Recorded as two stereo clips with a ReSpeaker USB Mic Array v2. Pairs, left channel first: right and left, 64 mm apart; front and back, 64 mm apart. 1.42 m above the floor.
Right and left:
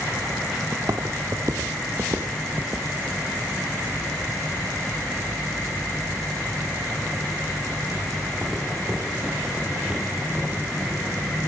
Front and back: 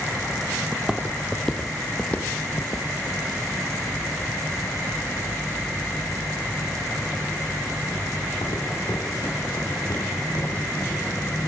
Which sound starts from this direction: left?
Footsteps, at 0.7 s.